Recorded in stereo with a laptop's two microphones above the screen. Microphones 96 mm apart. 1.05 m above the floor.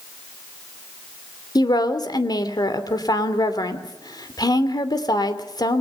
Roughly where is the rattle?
No rattle in this recording.